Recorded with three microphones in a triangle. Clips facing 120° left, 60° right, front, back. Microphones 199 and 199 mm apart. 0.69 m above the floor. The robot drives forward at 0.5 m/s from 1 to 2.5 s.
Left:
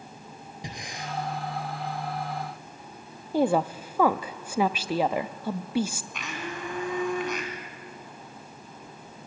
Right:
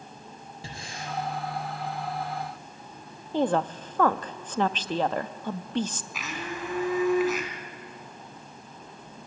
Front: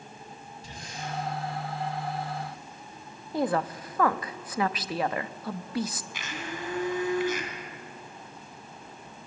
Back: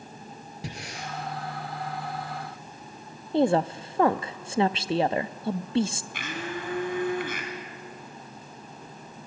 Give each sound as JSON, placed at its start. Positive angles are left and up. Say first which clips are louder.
{"t": 0.6, "sound": "breathing", "louder": "left 1 dB, back 1 dB", "azimuth_deg": -165, "distance_m": 3.0}
{"t": 3.3, "sound": "a woman speaking", "louder": "left 2 dB, back 5 dB", "azimuth_deg": -170, "distance_m": 0.5}
{"t": 6.1, "sound": "a blender", "louder": "right 2 dB, back 6 dB", "azimuth_deg": -145, "distance_m": 3.5}